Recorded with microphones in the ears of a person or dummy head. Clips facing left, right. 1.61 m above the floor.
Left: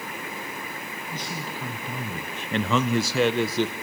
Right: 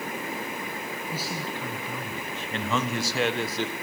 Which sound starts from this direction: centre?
A man speaking, at 1.1 s.